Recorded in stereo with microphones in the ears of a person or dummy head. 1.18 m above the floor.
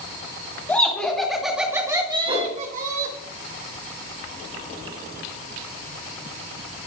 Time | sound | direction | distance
0.7 | laughter | 10° left (ahead or behind) | 2.5 m
2.3 | a whoosh | 30° right (ahead or behind) | 2.5 m